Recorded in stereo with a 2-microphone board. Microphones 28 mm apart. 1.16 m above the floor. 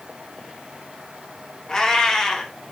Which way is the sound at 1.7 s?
20° left (ahead or behind).